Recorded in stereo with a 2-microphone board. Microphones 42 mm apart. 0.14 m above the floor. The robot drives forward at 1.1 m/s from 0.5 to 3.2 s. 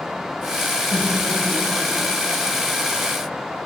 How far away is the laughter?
About 8.5 m.